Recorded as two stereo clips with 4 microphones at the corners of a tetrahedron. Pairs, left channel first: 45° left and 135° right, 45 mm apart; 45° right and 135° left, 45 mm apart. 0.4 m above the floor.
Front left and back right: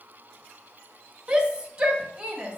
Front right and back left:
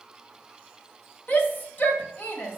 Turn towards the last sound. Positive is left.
turn(degrees=-75)